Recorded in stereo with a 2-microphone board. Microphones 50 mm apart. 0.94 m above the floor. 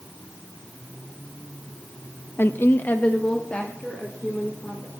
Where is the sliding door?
No sliding door in this recording.